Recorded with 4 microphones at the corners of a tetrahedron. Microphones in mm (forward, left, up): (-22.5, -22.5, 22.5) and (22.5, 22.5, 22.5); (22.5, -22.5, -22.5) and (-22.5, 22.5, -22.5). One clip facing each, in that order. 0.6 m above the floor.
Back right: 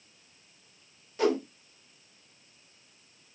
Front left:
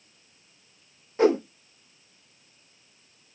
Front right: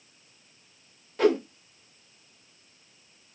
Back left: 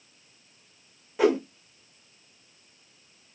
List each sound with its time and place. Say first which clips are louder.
1.2 s a whoosh: front left 6 dB, even; 60° left, 1.3 m